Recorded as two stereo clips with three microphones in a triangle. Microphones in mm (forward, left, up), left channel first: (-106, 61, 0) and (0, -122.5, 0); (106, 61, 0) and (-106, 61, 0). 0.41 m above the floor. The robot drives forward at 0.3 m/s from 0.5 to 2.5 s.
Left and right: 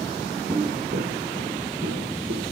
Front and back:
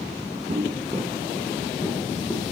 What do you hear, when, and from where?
0.5 s footsteps: 140° right, 0.6 m; by 2.4 s 75° right, 2 m